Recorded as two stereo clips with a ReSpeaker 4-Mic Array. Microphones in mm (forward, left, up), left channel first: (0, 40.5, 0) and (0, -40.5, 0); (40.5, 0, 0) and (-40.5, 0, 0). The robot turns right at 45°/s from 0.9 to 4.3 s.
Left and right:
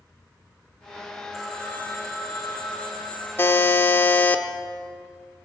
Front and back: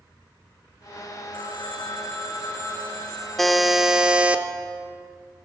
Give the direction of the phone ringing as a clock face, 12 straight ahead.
12 o'clock.